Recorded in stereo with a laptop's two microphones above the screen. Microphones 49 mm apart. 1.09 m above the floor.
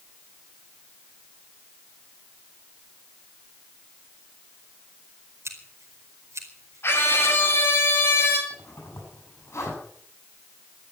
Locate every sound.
5.5 s scissors: 80° right, 4.5 m
6.8 s a scream: 55° left (ahead or behind), 6.5 m
8.5 s a zipper: 90° left, 8.5 m